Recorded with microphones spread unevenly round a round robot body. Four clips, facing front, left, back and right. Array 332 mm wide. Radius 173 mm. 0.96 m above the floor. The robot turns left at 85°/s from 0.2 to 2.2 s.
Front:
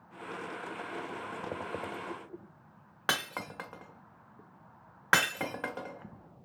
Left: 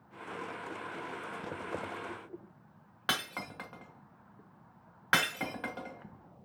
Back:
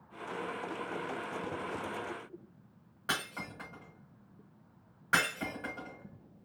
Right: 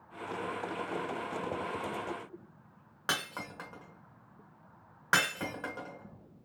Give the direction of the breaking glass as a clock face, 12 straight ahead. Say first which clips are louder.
Even, front 3 dB; 12 o'clock.